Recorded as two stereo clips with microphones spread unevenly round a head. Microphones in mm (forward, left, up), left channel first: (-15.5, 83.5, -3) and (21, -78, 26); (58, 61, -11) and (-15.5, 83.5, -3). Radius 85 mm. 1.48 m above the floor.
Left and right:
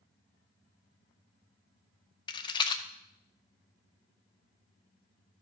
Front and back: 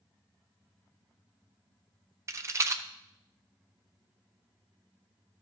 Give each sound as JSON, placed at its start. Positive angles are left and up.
{"t": 2.3, "sound": "a rattle", "azimuth_deg": 170, "distance_m": 0.7}